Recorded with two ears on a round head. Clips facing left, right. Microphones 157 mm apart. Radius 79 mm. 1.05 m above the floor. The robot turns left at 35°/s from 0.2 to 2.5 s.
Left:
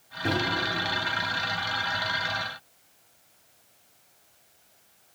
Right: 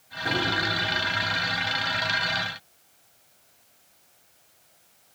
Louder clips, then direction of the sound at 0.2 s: Left 2 dB; 40° left (ahead or behind).